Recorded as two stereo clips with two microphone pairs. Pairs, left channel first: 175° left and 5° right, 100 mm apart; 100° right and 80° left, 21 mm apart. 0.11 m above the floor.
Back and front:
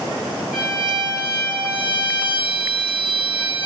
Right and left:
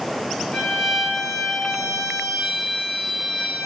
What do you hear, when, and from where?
0.5 s a violin: 90° right, 1.5 m